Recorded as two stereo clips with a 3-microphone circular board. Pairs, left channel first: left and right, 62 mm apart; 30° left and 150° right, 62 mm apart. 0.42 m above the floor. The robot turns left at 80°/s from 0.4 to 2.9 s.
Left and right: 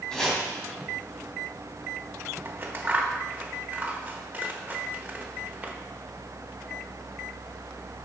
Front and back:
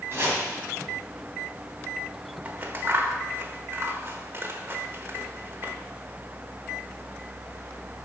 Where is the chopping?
165° left, 3.5 m.